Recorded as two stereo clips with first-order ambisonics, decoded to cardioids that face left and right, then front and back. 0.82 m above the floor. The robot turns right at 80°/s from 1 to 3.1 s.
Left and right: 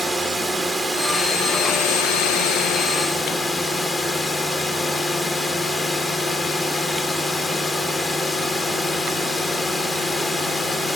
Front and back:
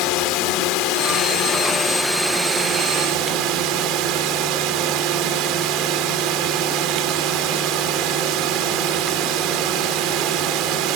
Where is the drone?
Straight ahead; by 11.0 s 165° left.